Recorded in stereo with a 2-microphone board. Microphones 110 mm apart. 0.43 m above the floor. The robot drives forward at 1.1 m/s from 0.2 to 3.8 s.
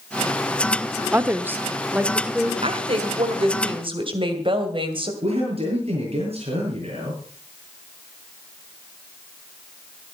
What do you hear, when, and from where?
1.1 s a woman speaking: 20° right (ahead or behind), 0.8 m; by 2.5 s 10° right (ahead or behind), 1.5 m
2.6 s a woman speaking: 60° right (ahead or behind), 2 m; by 5.1 s 50° right (ahead or behind), 2.5 m
5.2 s a man speaking: 60° right (ahead or behind), 7.5 m